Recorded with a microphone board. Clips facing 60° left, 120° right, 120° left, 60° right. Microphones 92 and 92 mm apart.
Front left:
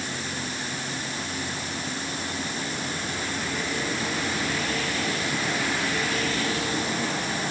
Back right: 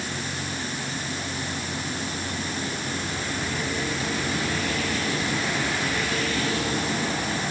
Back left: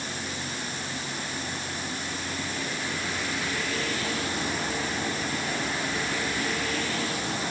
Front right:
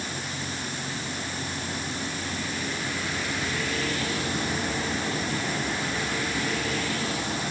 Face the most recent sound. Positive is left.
No sound to turn to.